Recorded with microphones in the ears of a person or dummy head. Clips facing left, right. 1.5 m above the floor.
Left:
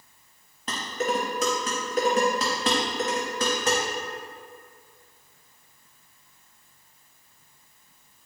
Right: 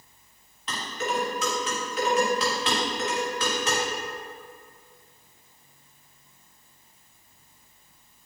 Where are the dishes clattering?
35° left (ahead or behind), 1.1 m.